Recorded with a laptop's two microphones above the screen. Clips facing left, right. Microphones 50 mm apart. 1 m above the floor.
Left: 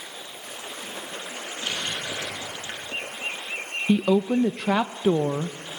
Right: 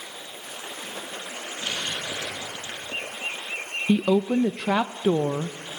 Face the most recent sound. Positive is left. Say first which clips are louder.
# even
turn(degrees=-5)  # may be behind; listen again after turning